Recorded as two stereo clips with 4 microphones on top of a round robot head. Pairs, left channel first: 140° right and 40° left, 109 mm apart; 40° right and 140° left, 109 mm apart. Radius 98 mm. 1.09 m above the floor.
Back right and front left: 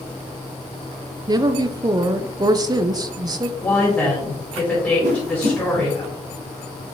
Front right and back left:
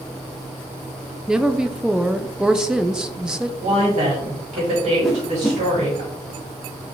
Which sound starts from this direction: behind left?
A woman speaking, at 3.6 s.